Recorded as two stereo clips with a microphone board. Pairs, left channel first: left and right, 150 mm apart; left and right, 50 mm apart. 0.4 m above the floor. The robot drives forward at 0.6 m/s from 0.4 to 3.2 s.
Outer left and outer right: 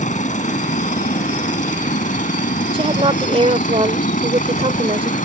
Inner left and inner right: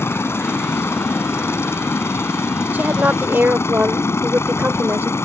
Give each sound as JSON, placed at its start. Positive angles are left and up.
{"t": 0.0, "sound": "a helicopter", "side_deg": 50}
{"t": 2.7, "sound": "a woman speaking", "side_deg": -35}